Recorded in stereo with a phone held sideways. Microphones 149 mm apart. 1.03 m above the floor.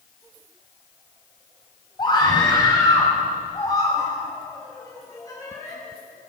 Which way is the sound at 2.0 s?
30° left (ahead or behind).